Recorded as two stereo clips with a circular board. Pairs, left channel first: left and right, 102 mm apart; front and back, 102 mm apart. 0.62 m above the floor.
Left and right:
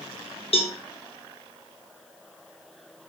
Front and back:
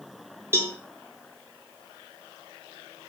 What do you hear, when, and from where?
0.5 s a cowbell: 115° left, 0.6 m